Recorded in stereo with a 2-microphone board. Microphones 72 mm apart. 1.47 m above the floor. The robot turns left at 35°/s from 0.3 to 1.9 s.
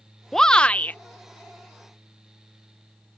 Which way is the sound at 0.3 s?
5° left (ahead or behind).